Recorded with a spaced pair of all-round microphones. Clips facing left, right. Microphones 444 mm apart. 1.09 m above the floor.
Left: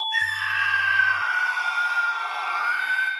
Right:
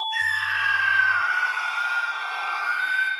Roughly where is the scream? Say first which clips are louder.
Even; left.